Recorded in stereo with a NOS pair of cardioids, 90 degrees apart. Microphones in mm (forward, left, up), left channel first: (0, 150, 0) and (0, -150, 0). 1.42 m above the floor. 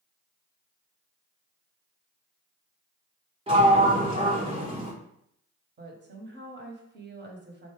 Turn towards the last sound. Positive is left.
turn(degrees=-35)